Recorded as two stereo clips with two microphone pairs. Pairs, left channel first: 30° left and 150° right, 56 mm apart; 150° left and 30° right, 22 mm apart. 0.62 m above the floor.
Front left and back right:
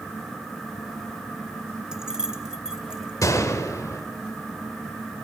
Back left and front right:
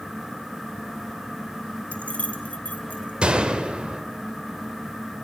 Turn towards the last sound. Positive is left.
turn(degrees=15)